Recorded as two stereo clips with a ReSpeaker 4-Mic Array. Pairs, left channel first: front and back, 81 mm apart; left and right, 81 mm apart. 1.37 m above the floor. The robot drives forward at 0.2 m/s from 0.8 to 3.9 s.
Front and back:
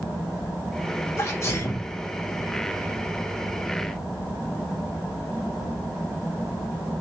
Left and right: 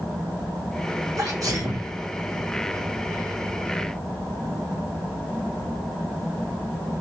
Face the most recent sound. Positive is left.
turn(degrees=-80)